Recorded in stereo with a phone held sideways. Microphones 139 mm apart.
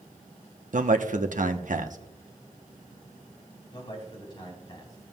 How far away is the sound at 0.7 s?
About 0.9 m.